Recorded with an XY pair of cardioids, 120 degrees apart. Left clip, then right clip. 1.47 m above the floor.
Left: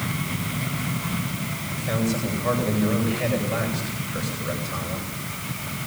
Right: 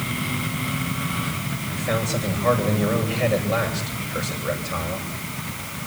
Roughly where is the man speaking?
Ahead right.